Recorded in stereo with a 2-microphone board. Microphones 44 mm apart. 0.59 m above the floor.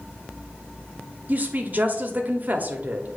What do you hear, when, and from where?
1.3 s a woman speaking: 40° right (ahead or behind), 1.0 m